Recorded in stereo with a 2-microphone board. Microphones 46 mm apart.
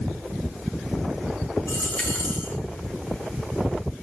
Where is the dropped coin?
40° left (ahead or behind), 6 m.